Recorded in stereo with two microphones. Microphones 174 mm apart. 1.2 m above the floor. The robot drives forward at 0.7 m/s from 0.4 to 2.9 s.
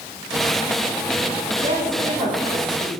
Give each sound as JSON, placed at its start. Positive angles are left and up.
{"t": 1.6, "sound": "a woman speaking", "side_deg": -45, "distance_m": 9.5}